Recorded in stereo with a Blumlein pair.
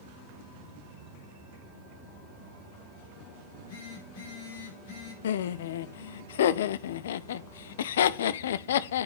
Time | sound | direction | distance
3.4 | a phone buzzing | 50° left | 5.5 m
5.2 | laughter | 60° left | 0.6 m